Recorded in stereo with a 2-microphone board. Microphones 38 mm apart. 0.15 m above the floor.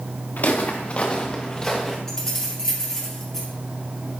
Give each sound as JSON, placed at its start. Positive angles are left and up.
{"t": 0.4, "sound": "footsteps", "side_deg": 55, "distance_m": 1.4}
{"t": 2.1, "sound": "keys jangling", "side_deg": 10, "distance_m": 2.5}